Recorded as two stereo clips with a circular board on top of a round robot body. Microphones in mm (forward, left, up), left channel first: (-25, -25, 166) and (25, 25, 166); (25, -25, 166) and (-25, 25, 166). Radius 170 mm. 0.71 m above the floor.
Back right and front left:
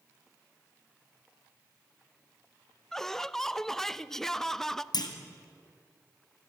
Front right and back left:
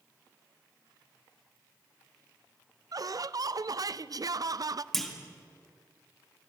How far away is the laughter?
About 0.7 m.